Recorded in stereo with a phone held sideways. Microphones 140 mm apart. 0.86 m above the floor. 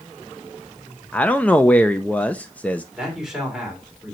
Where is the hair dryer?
I don't hear a hair dryer.